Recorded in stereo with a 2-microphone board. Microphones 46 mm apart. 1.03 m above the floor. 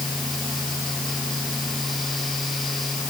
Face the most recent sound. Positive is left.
No sound to turn to.